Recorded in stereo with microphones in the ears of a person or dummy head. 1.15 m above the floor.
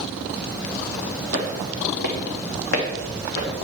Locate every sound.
1.3 s footsteps: 50° left (ahead or behind), 1.7 m; by 3.5 s 70° left (ahead or behind), 3.5 m